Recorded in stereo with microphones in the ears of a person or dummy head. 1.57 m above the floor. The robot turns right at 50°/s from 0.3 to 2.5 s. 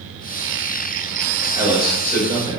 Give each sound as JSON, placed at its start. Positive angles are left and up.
{"t": 1.5, "sound": "a man speaking", "side_deg": -15, "distance_m": 1.7}